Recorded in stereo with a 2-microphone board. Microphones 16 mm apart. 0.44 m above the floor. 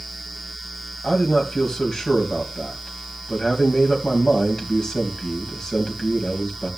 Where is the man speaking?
45° left (ahead or behind), 3 m.